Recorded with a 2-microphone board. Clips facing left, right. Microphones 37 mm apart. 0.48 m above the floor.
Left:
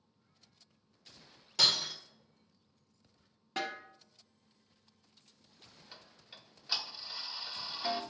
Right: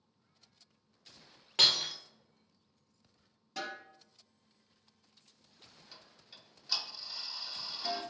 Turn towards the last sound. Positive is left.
turn(degrees=20)  # may be behind; listen again after turning